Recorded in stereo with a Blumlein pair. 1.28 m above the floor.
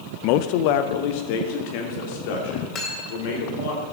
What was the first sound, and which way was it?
A man speaking, 40° left.